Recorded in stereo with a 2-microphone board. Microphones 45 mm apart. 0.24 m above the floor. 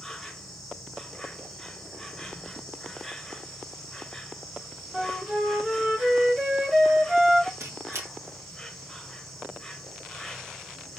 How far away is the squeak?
About 2 m.